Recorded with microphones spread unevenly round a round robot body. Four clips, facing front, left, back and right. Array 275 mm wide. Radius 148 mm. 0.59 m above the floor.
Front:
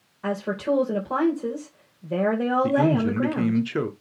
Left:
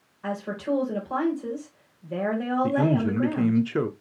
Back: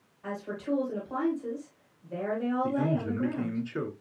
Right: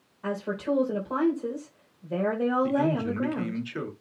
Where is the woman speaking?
10° right, 3 m.